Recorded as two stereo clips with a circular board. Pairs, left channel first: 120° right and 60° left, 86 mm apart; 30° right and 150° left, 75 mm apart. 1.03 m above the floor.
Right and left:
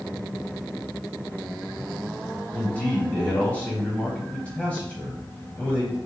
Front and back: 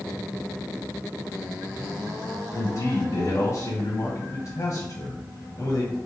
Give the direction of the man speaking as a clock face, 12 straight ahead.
2 o'clock.